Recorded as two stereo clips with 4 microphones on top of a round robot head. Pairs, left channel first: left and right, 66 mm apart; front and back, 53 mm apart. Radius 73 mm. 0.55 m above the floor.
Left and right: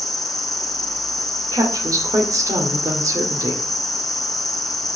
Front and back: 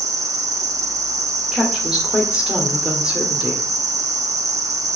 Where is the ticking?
I don't hear ticking.